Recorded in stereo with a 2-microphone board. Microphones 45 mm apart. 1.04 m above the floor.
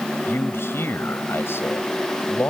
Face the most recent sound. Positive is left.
turn(degrees=65)  # may be behind; listen again after turning